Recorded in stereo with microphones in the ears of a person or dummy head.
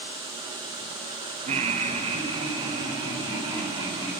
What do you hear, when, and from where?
1.5 s laughter: 35° right (ahead or behind), 0.8 m; by 4.1 s 25° right (ahead or behind), 3 m